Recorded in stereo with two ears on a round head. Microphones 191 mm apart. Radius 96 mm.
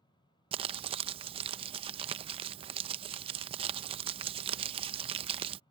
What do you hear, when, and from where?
0.5 s crumpling: 25° right (ahead or behind)